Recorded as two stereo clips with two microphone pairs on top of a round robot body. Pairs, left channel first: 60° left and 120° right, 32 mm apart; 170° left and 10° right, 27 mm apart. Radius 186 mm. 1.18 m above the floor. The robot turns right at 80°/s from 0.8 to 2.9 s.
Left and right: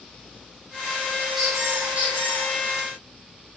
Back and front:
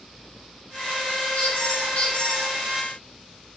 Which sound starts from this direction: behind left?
A squeak, at 1.4 s.